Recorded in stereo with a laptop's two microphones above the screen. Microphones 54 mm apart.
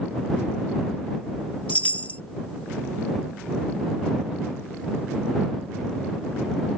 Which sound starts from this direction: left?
A chime, at 1.7 s.